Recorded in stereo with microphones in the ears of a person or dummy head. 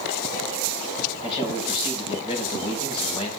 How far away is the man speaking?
About 7.5 m.